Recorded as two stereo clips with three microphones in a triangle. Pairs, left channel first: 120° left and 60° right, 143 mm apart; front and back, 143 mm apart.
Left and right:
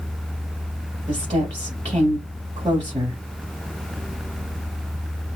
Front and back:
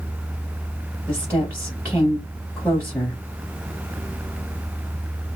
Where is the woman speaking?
65° right, 1.2 m.